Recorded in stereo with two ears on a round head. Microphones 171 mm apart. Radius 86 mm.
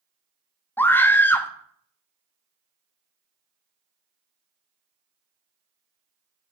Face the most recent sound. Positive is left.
turn(degrees=10)  # may be behind; listen again after turning